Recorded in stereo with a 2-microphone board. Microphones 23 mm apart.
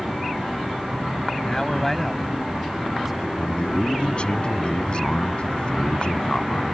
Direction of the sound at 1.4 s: 25° left (ahead or behind).